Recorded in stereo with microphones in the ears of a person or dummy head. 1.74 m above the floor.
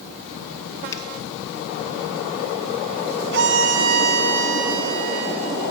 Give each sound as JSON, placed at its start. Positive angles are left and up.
{"t": 0.9, "sound": "a finger snap", "side_deg": 25, "distance_m": 1.6}
{"t": 3.3, "sound": "a violin", "side_deg": -65, "distance_m": 1.6}